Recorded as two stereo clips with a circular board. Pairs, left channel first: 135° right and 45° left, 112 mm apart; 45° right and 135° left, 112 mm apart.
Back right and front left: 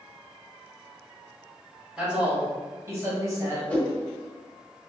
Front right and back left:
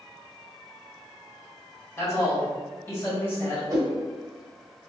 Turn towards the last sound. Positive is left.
turn(degrees=155)